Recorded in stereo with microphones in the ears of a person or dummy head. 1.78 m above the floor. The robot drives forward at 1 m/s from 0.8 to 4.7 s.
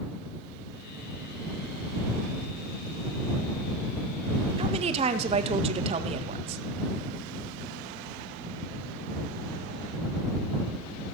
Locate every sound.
4.6 s a woman speaking: 30° right (ahead or behind), 1.7 m